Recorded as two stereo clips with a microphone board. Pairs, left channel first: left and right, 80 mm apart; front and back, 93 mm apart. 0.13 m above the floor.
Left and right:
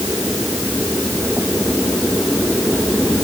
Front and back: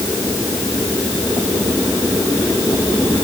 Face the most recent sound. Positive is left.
No sound to turn to.